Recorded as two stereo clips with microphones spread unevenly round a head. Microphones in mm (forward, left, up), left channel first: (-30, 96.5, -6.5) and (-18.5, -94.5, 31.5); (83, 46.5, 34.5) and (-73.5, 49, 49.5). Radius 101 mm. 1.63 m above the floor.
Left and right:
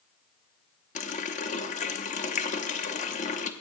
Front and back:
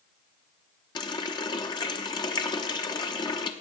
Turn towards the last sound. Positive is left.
turn(degrees=50)